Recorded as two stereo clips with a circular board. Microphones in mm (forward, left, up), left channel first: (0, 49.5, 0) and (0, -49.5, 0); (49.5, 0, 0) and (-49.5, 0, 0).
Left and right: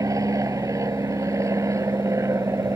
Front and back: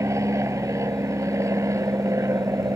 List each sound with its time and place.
0.0 s an aircraft: 130° right; by 2.8 s 135° right